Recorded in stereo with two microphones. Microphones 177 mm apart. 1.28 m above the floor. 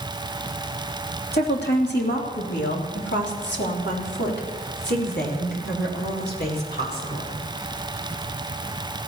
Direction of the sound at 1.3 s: 65° left (ahead or behind).